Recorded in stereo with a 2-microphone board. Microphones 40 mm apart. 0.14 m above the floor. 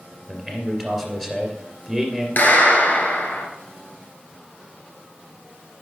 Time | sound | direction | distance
0.3 | a man speaking | 5° left (ahead or behind) | 2.5 m
2.4 | a clap | 50° left (ahead or behind) | 1.9 m